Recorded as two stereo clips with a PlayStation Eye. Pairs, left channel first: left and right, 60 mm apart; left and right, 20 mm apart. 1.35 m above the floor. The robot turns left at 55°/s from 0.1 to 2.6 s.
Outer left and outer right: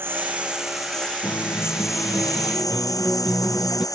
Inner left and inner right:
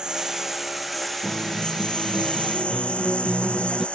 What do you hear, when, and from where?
0.0 s a lawn mower: 40° right (ahead or behind); by 4.0 s 85° left
1.2 s a guitar: 60° left; by 3.9 s 15° right